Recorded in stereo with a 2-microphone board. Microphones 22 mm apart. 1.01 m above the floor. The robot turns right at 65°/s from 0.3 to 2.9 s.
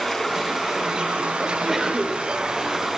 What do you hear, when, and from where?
0.0 s running water: 175° left, 6 m; by 3.0 s 15° right, 6 m
1.4 s a sneeze: 170° left, 4.5 m; by 2.2 s 135° right, 4.5 m